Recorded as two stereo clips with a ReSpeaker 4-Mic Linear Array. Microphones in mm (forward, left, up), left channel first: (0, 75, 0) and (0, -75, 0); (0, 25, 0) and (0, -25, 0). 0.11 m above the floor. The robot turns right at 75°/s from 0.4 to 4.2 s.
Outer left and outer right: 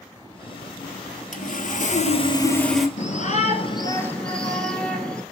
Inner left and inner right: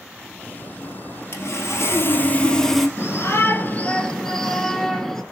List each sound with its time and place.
1.3 s sawing: 65° left, 1.6 m; by 2.9 s 175° right, 1.6 m
3.0 s a shout: 80° left, 1.7 m; by 5.2 s 175° left, 1.7 m